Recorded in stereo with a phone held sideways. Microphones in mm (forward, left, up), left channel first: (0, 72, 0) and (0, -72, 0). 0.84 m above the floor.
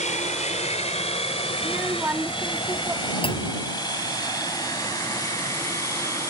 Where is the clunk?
40° left (ahead or behind).